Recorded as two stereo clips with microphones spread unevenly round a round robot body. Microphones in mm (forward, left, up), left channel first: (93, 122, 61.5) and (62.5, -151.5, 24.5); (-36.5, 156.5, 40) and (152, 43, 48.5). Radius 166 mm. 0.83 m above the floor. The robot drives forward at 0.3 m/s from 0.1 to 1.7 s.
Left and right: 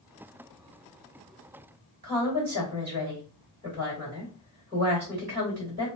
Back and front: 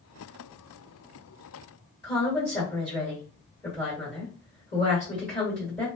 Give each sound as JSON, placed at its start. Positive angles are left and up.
{"t": 2.0, "sound": "a woman speaking", "azimuth_deg": -160, "distance_m": 1.8}